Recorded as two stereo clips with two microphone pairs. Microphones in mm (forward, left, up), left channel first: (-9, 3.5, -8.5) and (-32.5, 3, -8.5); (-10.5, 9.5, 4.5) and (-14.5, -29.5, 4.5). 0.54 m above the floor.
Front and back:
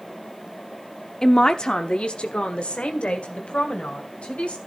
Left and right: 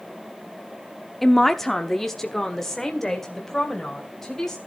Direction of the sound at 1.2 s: 5° left.